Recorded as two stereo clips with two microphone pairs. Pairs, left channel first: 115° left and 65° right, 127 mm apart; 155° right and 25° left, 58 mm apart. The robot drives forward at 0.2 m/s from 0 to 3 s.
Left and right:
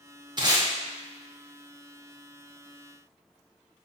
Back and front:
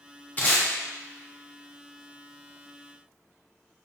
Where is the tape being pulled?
110° right, 0.8 m; by 0.7 s 115° right, 0.8 m.